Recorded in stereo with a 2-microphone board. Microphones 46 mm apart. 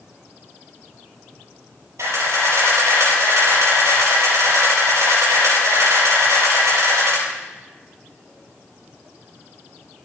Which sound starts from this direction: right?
A camera shutter, at 2.0 s.